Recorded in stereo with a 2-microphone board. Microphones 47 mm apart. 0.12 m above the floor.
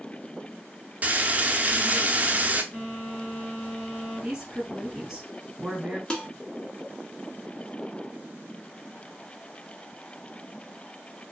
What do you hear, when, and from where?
1.0 s frying: 35° right (ahead or behind), 0.5 m
2.7 s a phone buzzing: 40° left (ahead or behind), 1.6 m
4.2 s a woman speaking: 10° right (ahead or behind), 1.3 m
6.1 s dishes clattering: 20° left (ahead or behind), 0.7 m